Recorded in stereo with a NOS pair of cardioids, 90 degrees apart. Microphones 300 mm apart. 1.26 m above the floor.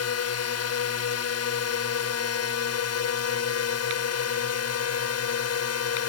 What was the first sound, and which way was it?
A drone, 55° left.